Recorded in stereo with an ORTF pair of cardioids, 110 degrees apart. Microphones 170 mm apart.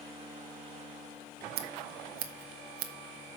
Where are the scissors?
70° right, 1.4 m.